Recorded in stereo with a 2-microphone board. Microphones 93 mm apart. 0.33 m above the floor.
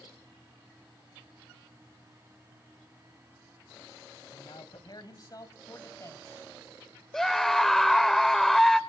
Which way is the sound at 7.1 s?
5° left (ahead or behind).